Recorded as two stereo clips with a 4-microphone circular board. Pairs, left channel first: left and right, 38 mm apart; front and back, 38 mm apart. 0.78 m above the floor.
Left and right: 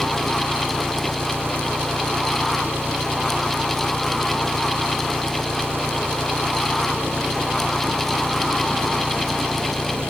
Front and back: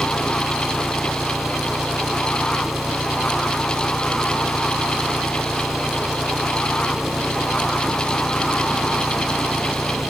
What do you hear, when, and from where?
0.0 s an engine running: 100° right